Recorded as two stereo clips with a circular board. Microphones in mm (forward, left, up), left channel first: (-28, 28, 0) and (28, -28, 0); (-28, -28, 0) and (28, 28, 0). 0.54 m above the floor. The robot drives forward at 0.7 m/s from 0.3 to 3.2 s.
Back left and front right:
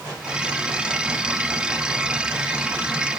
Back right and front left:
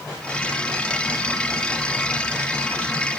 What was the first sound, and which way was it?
Only background noise.